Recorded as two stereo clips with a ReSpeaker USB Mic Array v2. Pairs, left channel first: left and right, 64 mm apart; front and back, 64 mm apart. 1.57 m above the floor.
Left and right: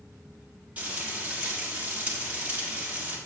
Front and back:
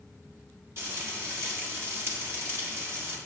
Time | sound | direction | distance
0.8 | frying | 150° right | 1.6 m